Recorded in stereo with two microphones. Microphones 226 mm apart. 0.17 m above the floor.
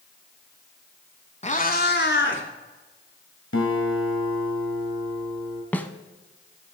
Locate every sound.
1.4 s a cat meowing: 30° left (ahead or behind), 0.8 m; by 2.4 s 60° left (ahead or behind), 1.3 m
3.5 s a guitar: 70° left (ahead or behind), 1.8 m
5.7 s a snare drum: 10° left (ahead or behind), 0.6 m